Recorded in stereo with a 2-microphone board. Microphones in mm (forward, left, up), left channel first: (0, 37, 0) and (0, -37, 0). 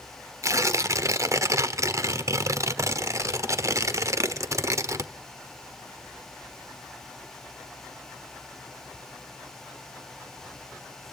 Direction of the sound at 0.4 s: 45° right (ahead or behind).